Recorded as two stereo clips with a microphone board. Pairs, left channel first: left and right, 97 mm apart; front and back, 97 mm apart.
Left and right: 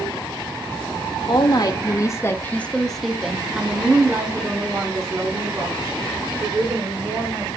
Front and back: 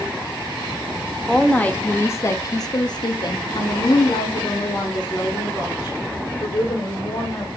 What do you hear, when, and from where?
1.3 s a woman speaking: 80° left, 1.0 m; by 7.6 s 40° right, 3 m